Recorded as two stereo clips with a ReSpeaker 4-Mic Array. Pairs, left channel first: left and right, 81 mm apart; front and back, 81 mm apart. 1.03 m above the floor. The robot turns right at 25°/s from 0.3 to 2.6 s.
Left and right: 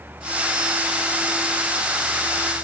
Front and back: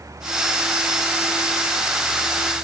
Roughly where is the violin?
No violin in this recording.